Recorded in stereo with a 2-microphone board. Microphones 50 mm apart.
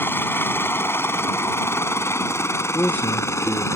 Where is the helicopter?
45° left (ahead or behind); by 3.8 s 65° left (ahead or behind).